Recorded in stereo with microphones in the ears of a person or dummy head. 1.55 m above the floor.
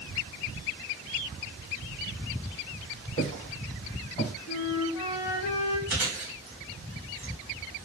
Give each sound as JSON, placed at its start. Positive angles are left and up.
{"t": 3.2, "sound": "footsteps", "side_deg": -35, "distance_m": 1.8}
{"t": 4.5, "sound": "a flute", "side_deg": 55, "distance_m": 0.7}
{"t": 5.9, "sound": "chewing", "side_deg": -30, "distance_m": 1.4}